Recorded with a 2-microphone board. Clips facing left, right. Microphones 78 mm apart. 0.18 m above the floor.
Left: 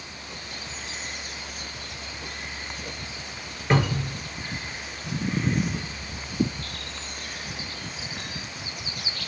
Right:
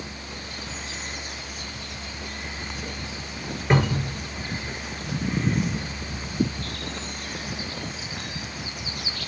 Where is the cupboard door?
10° right (ahead or behind), 1.0 m.